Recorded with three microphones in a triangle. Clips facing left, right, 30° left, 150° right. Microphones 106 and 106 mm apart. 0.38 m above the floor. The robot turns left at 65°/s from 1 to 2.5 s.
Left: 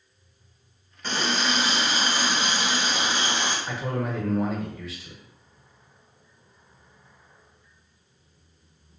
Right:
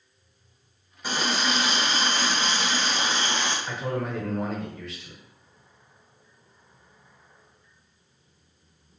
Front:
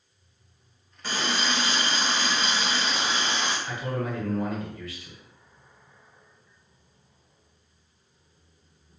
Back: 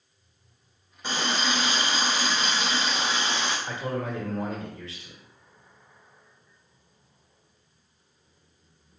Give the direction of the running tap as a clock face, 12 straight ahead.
5 o'clock.